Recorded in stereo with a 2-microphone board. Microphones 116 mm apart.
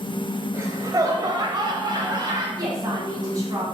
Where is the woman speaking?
30° right (ahead or behind), 2.5 m.